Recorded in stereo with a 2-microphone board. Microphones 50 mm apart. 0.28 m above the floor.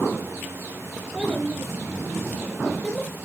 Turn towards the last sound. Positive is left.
turn(degrees=20)  # may be behind; listen again after turning